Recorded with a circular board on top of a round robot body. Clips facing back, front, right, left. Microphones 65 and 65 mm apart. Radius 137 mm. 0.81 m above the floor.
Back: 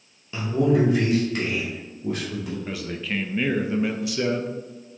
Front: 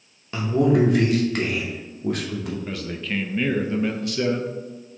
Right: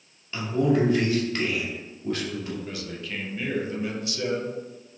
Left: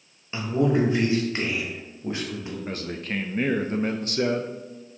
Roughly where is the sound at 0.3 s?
Ahead left.